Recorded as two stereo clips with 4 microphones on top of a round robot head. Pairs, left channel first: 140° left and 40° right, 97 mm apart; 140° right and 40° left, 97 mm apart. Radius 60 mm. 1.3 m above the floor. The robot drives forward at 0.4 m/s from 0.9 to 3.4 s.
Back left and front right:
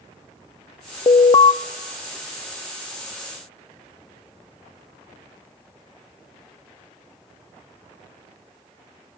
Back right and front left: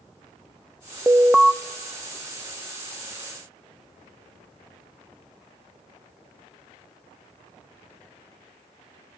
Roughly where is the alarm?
Left.